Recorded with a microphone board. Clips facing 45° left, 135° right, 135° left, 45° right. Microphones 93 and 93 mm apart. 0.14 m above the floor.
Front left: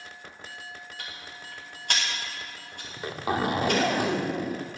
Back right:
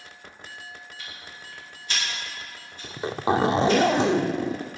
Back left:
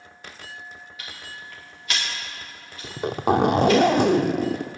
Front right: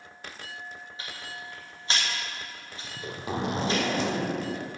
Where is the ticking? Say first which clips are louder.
Front left 1 dB, even; 15° left, 5.5 m.